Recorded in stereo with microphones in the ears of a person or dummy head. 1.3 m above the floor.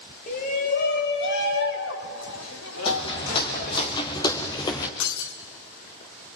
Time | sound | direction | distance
0.3 | a shout | 40° left (ahead or behind) | 3 m
2.9 | footsteps | 25° left (ahead or behind) | 3 m
5.0 | breaking glass | 65° left (ahead or behind) | 2.5 m